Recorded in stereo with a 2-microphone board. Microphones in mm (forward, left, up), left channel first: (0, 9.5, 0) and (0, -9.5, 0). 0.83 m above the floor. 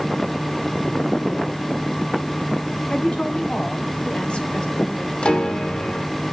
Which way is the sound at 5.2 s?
70° left (ahead or behind).